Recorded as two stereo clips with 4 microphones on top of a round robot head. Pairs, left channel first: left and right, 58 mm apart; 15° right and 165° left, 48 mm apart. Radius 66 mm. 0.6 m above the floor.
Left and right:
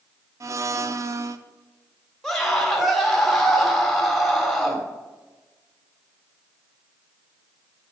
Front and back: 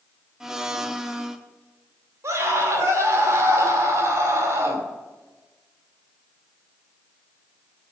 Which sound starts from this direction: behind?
A scream, at 2.2 s.